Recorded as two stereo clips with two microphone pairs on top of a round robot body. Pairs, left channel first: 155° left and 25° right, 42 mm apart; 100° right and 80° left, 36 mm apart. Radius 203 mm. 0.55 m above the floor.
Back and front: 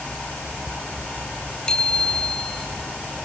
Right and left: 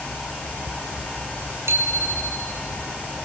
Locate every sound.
1.7 s a bicycle bell: 80° left, 6 m